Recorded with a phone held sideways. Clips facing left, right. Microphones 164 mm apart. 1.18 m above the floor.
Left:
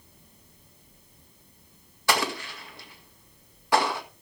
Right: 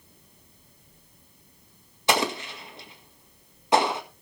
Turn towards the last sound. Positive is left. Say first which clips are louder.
# right 2 dB
turn(degrees=-20)  # may be behind; listen again after turning